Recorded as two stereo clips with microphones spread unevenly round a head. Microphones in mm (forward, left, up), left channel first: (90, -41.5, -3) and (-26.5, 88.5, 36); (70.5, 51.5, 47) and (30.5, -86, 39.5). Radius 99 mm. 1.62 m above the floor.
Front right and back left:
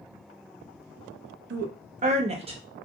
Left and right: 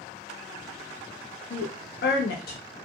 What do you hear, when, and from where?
1.5 s a woman speaking: 105° left, 0.6 m; by 2.6 s 70° left, 1.1 m